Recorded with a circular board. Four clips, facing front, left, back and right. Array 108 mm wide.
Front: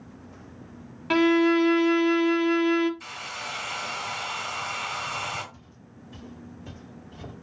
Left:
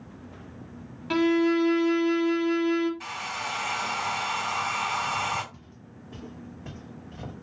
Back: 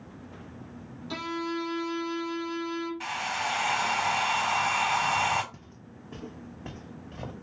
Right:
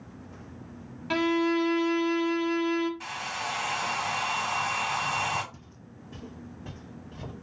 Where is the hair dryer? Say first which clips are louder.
Even, back 6 dB; 175° right, 2 m.